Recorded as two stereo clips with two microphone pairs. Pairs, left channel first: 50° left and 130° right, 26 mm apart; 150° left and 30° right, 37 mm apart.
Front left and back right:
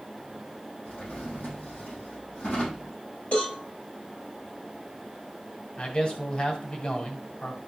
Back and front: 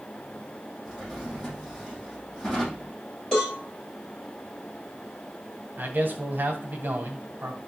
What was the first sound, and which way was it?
A drawer, 75° left.